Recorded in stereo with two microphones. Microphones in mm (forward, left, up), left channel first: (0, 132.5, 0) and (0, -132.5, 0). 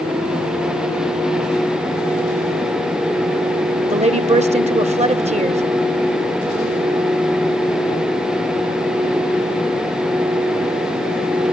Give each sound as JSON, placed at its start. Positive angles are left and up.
{"t": 3.9, "sound": "a woman speaking", "side_deg": -25, "distance_m": 0.8}